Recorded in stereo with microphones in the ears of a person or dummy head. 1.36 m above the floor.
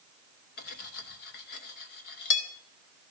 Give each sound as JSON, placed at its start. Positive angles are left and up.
{"t": 0.6, "sound": "cutlery clinking", "side_deg": 50, "distance_m": 0.8}